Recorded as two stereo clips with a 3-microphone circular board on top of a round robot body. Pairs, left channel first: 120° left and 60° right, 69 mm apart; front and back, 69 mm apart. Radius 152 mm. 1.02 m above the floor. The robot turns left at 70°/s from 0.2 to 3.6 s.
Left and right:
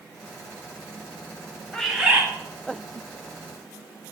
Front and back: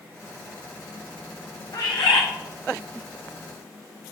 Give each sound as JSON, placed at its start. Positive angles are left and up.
{"t": 1.7, "sound": "a bird", "azimuth_deg": 40, "distance_m": 1.0}